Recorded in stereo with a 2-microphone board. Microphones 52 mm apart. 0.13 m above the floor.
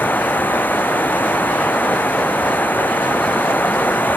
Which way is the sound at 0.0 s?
40° left (ahead or behind).